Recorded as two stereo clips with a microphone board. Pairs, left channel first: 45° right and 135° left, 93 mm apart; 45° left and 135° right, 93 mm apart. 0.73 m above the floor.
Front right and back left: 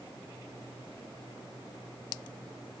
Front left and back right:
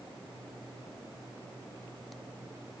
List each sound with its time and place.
Only background noise.